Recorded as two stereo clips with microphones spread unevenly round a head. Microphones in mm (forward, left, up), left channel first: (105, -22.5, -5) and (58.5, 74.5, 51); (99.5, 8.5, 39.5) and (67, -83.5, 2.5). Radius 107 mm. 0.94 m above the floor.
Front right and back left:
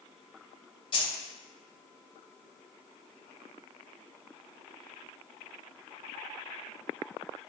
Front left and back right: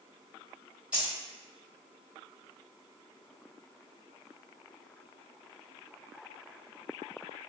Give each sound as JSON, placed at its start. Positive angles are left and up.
{"t": 0.9, "sound": "keys jangling", "azimuth_deg": -35, "distance_m": 1.2}